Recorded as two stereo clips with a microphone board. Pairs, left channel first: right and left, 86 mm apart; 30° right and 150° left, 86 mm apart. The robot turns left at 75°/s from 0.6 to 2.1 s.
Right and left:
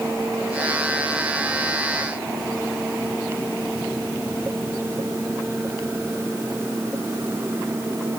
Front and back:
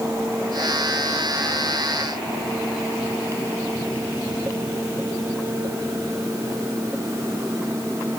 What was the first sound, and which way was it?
Only background noise.